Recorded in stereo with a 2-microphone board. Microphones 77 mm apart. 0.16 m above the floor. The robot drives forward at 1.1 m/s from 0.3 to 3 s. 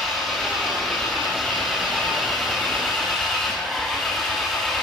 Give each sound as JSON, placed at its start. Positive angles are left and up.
{"t": 0.0, "sound": "an engine running", "side_deg": 0, "distance_m": 9.5}